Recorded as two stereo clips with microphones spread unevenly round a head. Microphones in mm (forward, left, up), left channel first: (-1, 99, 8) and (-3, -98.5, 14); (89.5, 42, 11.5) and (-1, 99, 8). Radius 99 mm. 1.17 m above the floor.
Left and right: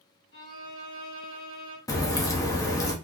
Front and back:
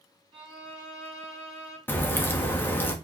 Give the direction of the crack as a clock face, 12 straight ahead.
11 o'clock.